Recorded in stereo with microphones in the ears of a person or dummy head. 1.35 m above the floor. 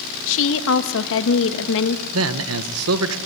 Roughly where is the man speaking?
Right.